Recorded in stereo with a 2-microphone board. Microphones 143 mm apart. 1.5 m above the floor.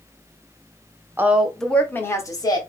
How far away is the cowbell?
No cowbell in this recording.